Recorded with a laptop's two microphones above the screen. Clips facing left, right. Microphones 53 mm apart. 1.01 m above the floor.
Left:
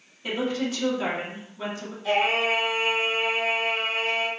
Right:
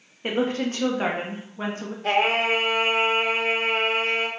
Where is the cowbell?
No cowbell in this recording.